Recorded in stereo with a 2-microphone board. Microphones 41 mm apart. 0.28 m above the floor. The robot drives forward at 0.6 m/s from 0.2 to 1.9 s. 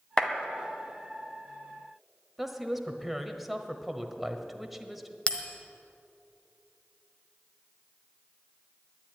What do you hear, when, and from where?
0.2 s a clap: 20° left (ahead or behind), 1.4 m
2.4 s a woman speaking: 5° right (ahead or behind), 1.0 m
5.3 s a bell: 30° left (ahead or behind), 1.2 m